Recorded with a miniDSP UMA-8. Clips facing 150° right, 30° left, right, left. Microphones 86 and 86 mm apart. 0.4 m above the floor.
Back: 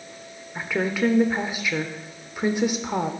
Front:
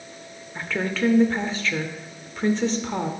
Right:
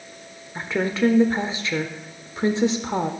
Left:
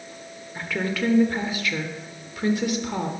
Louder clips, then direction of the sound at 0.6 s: Back 2 dB, right 4 dB; 90° right.